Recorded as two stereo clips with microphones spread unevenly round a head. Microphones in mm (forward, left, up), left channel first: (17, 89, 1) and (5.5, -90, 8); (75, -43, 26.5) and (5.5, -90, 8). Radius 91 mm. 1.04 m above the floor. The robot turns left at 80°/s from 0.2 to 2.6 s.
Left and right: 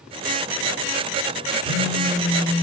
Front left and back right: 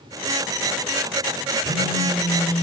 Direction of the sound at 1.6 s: 35° left.